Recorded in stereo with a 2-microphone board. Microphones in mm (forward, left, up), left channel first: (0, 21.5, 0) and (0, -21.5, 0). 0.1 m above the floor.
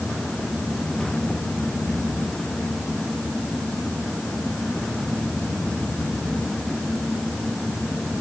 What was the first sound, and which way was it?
Only background noise.